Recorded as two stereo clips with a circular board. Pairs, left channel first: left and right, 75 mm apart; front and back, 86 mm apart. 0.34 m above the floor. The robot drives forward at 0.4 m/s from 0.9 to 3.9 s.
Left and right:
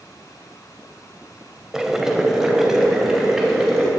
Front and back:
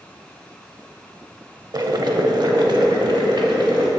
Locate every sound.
1.7 s boiling: 170° right, 0.6 m; by 3.9 s 175° right, 1.4 m